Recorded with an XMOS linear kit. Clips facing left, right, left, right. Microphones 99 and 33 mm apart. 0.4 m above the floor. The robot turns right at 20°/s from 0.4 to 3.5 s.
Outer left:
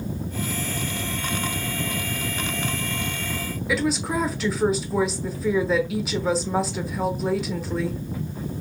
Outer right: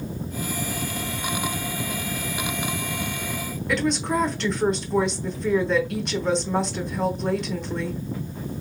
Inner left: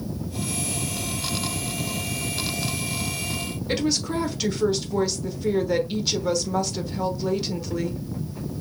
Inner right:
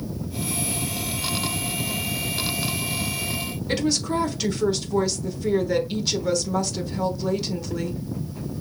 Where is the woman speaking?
5° left (ahead or behind), 1.0 m.